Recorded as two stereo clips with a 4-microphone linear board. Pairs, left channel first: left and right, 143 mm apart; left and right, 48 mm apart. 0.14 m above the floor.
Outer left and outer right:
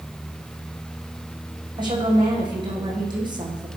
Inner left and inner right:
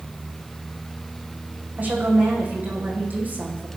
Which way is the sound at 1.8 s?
30° right (ahead or behind).